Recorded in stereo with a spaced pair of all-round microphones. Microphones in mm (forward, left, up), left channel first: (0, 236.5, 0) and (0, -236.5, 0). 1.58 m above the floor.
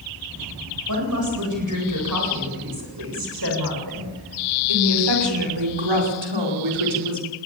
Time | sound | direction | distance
0.9 | a woman speaking | 40° right (ahead or behind) | 8.5 m